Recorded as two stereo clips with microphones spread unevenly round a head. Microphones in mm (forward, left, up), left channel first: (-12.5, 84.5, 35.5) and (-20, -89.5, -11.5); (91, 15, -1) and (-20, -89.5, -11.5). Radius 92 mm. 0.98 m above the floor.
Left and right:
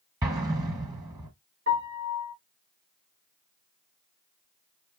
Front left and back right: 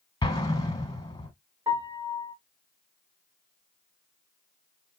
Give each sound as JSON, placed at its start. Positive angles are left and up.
{"t": 0.2, "sound": "an explosion", "azimuth_deg": -15, "distance_m": 1.3}
{"t": 1.7, "sound": "a piano", "azimuth_deg": -65, "distance_m": 2.5}